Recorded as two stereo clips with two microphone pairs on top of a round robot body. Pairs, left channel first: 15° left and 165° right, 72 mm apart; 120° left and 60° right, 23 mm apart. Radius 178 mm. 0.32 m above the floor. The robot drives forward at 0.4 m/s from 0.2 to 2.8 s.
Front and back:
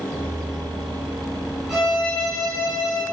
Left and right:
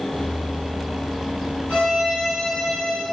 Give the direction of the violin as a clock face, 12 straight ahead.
8 o'clock.